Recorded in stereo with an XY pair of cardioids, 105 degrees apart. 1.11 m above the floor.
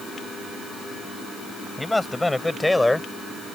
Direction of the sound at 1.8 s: 10° left.